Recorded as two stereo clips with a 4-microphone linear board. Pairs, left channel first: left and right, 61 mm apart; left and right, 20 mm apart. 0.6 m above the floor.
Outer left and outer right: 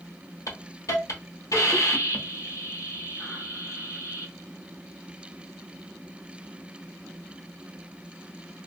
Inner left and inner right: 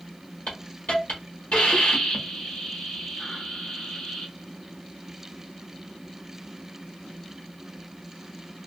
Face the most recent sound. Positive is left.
turn(degrees=70)  # may be behind; listen again after turning